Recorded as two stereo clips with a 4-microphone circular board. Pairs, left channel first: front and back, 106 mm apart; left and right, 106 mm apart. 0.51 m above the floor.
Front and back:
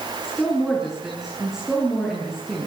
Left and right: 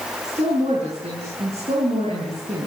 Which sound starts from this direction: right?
A woman speaking, at 0.2 s.